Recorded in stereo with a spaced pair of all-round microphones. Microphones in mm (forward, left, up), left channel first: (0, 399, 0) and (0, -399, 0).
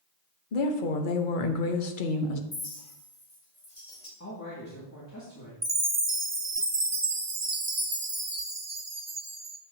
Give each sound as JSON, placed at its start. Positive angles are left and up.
{"t": 0.5, "sound": "a woman speaking", "side_deg": 80, "distance_m": 1.0}
{"t": 2.5, "sound": "a clink", "side_deg": 50, "distance_m": 2.5}
{"t": 4.2, "sound": "a man speaking", "side_deg": 20, "distance_m": 2.0}
{"t": 5.6, "sound": "a chime", "side_deg": -40, "distance_m": 0.8}